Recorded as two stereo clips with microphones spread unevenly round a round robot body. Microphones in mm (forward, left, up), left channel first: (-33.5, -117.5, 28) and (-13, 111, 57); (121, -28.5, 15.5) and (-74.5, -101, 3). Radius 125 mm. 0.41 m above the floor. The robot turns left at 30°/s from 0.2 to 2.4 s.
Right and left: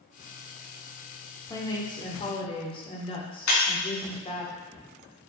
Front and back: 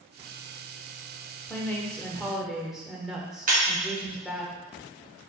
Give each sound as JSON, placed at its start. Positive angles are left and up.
{"t": 1.5, "sound": "a woman speaking", "azimuth_deg": -50, "distance_m": 1.5}
{"t": 3.5, "sound": "breaking glass", "azimuth_deg": -110, "distance_m": 3.0}